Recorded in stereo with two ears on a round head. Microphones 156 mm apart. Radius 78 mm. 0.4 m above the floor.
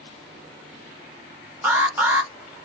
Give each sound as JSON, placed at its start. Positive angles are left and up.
{"t": 1.6, "sound": "an alarm", "side_deg": -15, "distance_m": 1.3}